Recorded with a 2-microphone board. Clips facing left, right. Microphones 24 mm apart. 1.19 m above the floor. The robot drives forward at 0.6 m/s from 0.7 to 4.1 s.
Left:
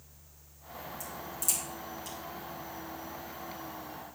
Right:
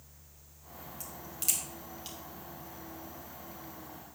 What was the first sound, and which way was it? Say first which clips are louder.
A crack: even; 50° right (ahead or behind).